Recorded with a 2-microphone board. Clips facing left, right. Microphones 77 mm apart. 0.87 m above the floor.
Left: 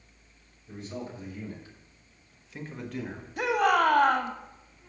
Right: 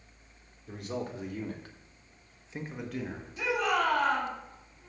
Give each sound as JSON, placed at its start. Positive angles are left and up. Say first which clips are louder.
{"t": 0.7, "sound": "a man speaking", "louder": "right 2 dB", "side_deg": -70, "distance_m": 3.0}
{"t": 3.4, "sound": "a shout", "louder": "left 5 dB", "side_deg": 60, "distance_m": 1.7}